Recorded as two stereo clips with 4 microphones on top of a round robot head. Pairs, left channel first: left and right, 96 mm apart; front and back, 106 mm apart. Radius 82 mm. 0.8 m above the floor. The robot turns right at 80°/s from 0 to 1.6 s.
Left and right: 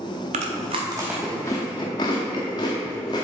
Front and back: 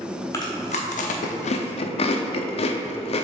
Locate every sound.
0.3 s chewing: 70° right, 0.5 m; by 3.2 s 30° left, 0.5 m